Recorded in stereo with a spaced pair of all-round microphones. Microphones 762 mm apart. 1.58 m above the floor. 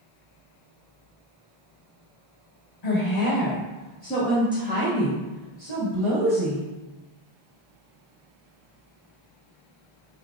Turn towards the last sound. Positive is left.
turn(degrees=-45)  # may be behind; listen again after turning